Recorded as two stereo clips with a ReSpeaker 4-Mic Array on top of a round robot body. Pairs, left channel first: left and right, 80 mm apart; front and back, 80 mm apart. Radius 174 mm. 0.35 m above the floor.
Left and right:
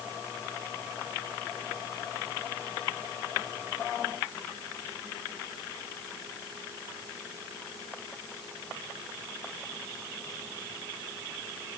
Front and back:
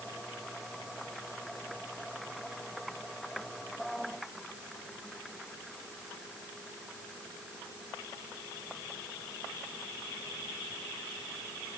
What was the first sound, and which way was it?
Only background noise.